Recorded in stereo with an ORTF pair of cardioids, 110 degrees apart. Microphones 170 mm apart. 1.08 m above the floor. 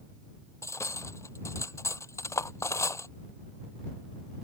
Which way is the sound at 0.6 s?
15° left.